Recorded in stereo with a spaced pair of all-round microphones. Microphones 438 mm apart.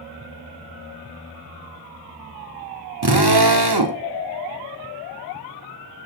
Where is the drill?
60° right (ahead or behind), 1.9 m.